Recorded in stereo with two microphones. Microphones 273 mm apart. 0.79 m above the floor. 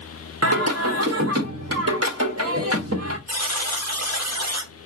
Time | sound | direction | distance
0.4 | singing | 55° right (ahead or behind) | 1.4 m
3.3 | a buzzer | 65° right (ahead or behind) | 1.3 m